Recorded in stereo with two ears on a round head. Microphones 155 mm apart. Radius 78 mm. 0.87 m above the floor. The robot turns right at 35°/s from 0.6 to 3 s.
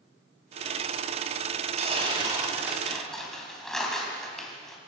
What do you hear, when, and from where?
1.8 s tearing paper: 40° right, 4 m; by 4.8 s 5° left, 4 m